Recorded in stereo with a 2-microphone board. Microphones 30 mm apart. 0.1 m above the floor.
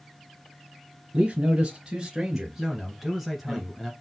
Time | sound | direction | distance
1.1 | a man speaking | 30° right (ahead or behind) | 1.6 m
2.6 | a man speaking | centre (ahead or behind) | 1.4 m